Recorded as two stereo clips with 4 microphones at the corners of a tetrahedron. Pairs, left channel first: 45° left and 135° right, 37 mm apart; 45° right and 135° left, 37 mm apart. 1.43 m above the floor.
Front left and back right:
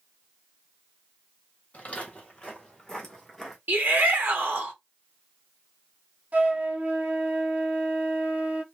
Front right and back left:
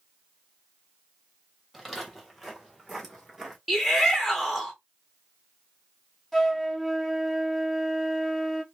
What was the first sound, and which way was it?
Footsteps, 45° left.